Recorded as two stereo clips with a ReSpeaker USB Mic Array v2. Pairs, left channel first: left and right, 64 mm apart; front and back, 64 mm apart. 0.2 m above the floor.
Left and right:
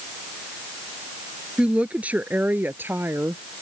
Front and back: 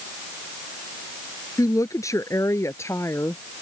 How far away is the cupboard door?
I don't hear a cupboard door.